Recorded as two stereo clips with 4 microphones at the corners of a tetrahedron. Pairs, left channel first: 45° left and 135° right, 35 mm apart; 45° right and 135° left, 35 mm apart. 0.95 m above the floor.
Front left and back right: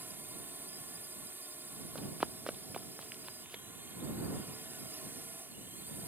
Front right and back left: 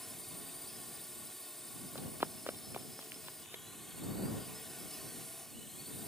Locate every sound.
0.0 s a drone: 125° right
1.9 s running footsteps: 155° left; by 3.6 s 160° left